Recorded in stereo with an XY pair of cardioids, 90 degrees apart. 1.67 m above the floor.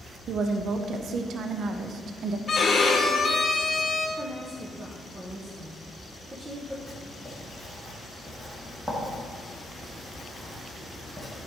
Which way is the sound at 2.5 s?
45° left.